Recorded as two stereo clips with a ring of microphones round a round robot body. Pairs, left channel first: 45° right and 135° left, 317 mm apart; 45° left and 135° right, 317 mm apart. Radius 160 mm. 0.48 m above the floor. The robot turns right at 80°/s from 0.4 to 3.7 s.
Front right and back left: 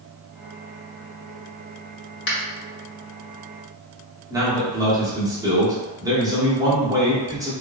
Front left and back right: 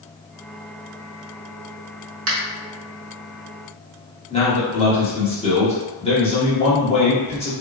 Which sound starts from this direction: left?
A man speaking, at 4.3 s.